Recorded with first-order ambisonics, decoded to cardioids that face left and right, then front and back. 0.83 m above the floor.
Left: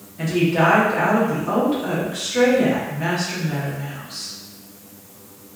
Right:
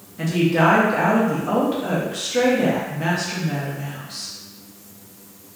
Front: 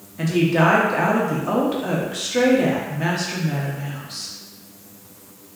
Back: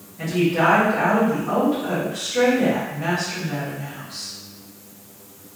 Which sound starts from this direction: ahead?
A woman speaking, at 0.2 s.